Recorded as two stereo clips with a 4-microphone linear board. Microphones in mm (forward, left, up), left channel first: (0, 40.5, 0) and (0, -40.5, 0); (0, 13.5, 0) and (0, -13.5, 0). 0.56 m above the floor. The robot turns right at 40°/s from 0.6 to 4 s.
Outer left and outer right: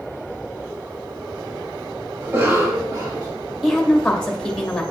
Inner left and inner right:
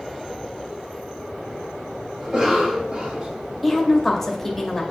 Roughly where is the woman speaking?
Centre.